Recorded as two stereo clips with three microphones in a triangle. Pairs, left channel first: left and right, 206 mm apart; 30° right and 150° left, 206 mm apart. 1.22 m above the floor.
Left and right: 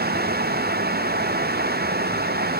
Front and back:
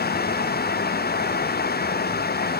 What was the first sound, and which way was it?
Only background noise.